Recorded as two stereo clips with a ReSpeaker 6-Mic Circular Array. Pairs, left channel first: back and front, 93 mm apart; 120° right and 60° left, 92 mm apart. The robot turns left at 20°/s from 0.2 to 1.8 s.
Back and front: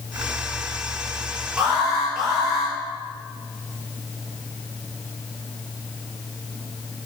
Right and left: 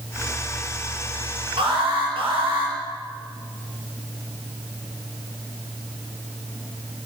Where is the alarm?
90° left, 5 m; by 2.7 s 85° left, 5 m.